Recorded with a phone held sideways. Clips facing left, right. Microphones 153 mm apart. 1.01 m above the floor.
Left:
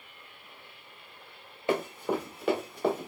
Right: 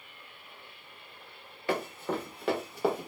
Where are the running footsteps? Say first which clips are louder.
Left 3 dB; 20° left (ahead or behind), 1.0 m; by 3.1 s 15° right (ahead or behind), 1.1 m.